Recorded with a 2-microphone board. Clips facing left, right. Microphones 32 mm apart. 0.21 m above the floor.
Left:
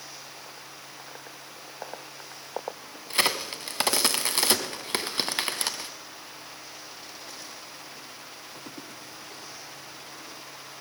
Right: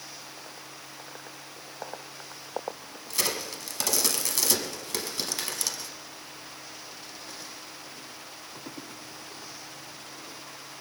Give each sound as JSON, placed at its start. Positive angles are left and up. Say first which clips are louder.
{"t": 3.1, "sound": "a crack", "louder": "left 5 dB", "side_deg": 40, "distance_m": 0.9}